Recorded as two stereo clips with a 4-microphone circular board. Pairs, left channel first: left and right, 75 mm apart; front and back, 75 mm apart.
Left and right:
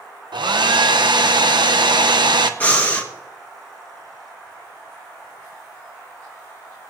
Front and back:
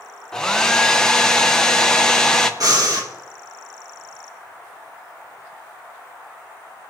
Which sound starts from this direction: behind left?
Breathing, at 2.6 s.